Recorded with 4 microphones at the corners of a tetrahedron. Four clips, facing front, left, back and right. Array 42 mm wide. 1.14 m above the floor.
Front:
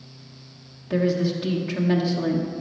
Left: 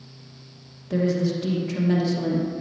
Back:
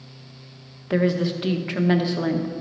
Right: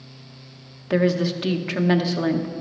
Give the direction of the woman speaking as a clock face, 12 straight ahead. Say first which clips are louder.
Right 3 dB, back 1 dB; 4 o'clock.